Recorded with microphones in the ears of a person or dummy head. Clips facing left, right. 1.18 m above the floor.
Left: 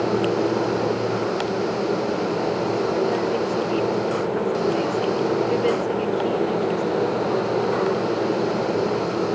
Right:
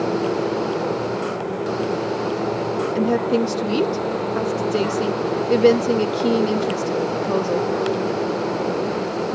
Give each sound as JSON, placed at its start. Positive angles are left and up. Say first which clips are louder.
{"t": 3.0, "sound": "a woman speaking", "louder": "right 3 dB", "side_deg": -55}